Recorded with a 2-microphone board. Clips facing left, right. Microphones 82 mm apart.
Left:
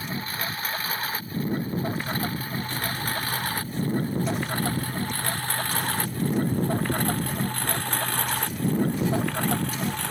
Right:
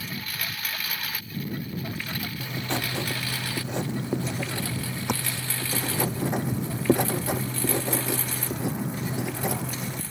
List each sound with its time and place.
0.0 s a lawn mower: 30° left (ahead or behind); by 10.1 s 70° left (ahead or behind)
2.4 s writing: 80° right